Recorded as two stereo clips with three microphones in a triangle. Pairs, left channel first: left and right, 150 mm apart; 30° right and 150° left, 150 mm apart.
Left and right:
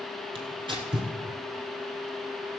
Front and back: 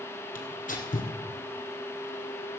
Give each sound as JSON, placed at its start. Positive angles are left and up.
{"t": 0.3, "sound": "tearing paper", "azimuth_deg": -35, "distance_m": 2.0}